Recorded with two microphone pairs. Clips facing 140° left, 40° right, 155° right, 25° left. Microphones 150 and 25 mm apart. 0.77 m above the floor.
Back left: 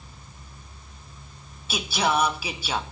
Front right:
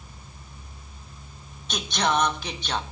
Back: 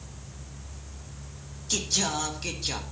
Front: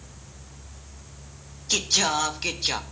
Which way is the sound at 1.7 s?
65° left.